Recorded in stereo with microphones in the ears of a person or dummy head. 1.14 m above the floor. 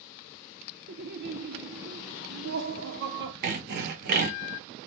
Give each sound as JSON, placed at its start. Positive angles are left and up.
{"t": 0.9, "sound": "laughter", "side_deg": -50, "distance_m": 0.6}
{"t": 3.4, "sound": "sawing", "side_deg": -55, "distance_m": 0.5}